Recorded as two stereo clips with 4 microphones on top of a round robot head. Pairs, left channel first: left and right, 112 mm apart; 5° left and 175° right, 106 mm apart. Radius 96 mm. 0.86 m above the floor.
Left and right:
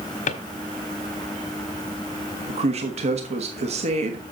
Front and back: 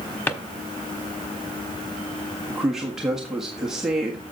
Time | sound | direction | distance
0.3 | a drawer | 75° left | 1.3 m
2.5 | a man speaking | 90° right | 1.5 m